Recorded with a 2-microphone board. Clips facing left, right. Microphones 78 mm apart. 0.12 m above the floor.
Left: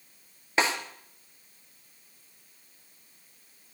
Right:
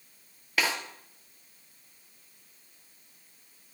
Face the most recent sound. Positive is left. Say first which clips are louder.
# left 3 dB
turn(degrees=30)  # may be behind; listen again after turning